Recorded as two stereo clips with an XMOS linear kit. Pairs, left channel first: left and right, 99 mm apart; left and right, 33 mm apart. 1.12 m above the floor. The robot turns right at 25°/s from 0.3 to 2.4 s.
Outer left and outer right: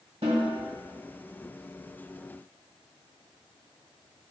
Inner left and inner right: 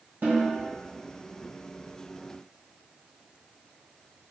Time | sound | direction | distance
0.2 | a snare drum | 65° right (ahead or behind) | 1.4 m